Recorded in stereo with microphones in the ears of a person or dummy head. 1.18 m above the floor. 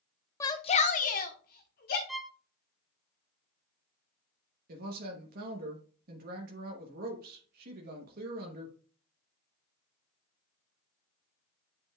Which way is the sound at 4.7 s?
55° right (ahead or behind).